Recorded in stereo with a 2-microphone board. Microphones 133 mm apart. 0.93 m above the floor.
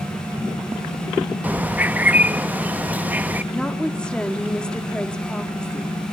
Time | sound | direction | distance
1.4 | a bird | 15° right (ahead or behind) | 0.5 m
3.5 | a woman speaking | 5° left (ahead or behind) | 2 m